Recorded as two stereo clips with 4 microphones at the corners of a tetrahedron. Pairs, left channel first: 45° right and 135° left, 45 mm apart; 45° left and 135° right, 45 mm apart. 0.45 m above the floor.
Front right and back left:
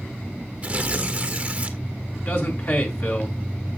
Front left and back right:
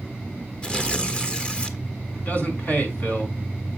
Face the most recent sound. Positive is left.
turn(degrees=-10)